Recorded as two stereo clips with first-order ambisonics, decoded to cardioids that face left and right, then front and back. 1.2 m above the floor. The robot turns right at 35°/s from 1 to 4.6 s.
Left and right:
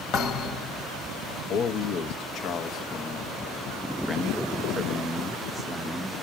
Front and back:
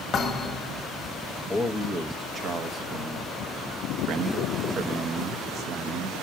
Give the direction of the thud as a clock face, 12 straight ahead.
10 o'clock.